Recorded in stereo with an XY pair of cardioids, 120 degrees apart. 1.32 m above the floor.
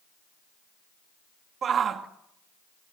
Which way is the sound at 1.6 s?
45° right.